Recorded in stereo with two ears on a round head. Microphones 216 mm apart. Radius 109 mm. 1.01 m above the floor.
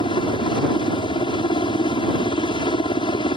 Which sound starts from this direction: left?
A helicopter, at 0.0 s.